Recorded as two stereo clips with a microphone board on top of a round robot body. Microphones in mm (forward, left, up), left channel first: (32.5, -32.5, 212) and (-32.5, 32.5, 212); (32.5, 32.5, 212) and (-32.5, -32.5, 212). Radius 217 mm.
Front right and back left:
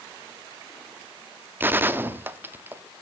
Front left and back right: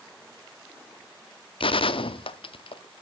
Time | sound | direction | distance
1.6 | a gunshot | 65° left | 0.8 m